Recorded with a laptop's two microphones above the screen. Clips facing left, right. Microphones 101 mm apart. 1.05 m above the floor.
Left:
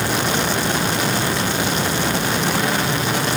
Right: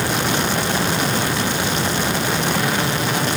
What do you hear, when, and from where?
Only background noise.